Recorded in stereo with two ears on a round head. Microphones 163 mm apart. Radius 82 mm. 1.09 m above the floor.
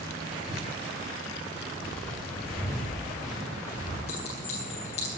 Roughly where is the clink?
Left.